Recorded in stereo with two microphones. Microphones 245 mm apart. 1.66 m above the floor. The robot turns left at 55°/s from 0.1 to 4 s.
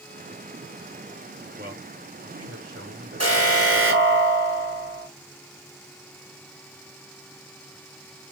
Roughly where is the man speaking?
Ahead right.